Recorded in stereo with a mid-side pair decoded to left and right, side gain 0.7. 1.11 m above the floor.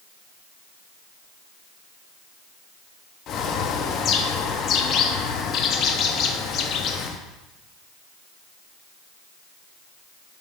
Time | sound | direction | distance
3.3 | a bird | 45° left | 0.8 m